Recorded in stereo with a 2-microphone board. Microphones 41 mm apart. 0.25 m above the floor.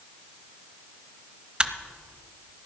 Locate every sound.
1.6 s a camera shutter: 25° right (ahead or behind), 0.7 m